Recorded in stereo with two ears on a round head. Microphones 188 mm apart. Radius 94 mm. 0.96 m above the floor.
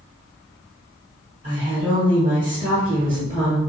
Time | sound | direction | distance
1.4 | a woman speaking | 20° right (ahead or behind) | 1.0 m